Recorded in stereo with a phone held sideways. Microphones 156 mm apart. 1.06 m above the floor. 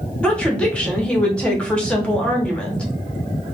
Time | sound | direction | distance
0.2 | a woman speaking | 5° left (ahead or behind) | 0.8 m